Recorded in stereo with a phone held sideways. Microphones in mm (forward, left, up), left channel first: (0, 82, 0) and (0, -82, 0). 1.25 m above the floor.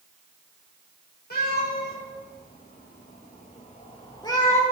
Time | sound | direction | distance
1.3 | a cat meowing | 70° left (ahead or behind) | 4.5 m